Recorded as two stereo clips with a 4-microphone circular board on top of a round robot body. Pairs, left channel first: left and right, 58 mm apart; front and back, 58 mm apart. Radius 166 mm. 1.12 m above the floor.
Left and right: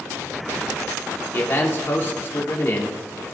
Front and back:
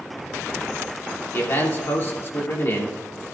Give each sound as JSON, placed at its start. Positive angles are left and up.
{"t": 1.3, "sound": "a man speaking", "azimuth_deg": 45, "distance_m": 2.5}